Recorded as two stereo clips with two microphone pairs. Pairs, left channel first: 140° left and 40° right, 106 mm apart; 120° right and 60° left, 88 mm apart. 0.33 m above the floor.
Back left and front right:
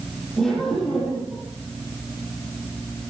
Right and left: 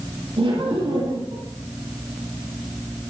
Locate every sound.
0.4 s laughter: 45° left, 8.5 m